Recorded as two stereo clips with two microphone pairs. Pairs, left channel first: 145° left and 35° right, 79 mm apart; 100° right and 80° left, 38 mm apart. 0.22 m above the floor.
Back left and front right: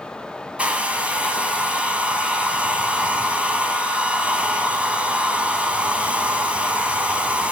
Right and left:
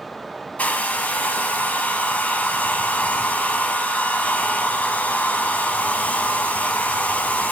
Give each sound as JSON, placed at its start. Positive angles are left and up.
{"t": 0.6, "sound": "a hair dryer", "azimuth_deg": -105, "distance_m": 1.3}